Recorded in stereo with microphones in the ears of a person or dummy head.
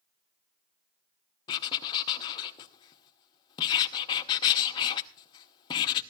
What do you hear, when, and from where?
1.5 s writing: 25° left (ahead or behind), 0.9 m